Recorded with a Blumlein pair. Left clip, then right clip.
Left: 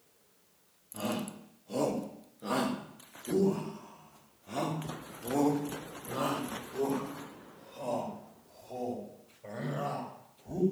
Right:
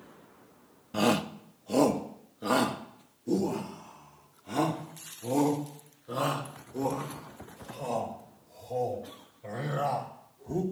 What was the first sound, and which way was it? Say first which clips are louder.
A shout: right 9 dB; 35° right.